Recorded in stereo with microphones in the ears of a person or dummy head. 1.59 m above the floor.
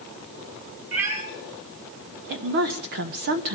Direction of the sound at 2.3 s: 50° right (ahead or behind).